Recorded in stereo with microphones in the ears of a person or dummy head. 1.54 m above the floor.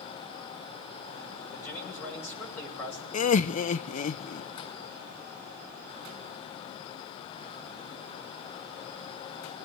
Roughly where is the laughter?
Left.